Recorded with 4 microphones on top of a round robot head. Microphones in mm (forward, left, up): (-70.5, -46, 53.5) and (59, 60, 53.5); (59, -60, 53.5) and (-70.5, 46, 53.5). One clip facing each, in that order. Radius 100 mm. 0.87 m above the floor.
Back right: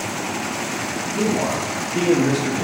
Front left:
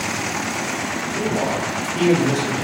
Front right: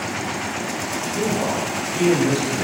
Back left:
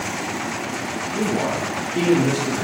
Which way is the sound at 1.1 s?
170° left.